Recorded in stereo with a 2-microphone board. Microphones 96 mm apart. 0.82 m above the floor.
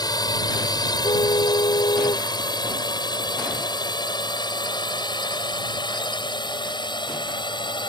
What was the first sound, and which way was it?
A drone, 45° left (ahead or behind).